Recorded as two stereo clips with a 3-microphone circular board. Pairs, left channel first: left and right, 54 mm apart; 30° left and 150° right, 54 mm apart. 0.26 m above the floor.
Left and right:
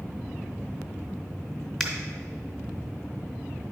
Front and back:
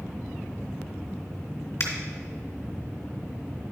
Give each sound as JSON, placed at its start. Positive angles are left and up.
{"t": 1.8, "sound": "a finger snap", "azimuth_deg": 5, "distance_m": 2.0}